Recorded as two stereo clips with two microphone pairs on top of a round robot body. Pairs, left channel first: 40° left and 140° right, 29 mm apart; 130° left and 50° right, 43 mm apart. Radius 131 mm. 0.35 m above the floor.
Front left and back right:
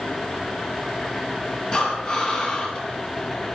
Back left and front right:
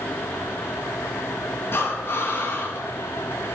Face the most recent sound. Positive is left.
turn(degrees=100)